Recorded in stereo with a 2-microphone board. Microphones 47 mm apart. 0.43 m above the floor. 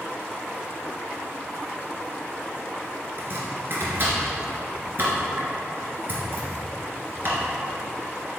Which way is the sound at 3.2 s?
50° right (ahead or behind).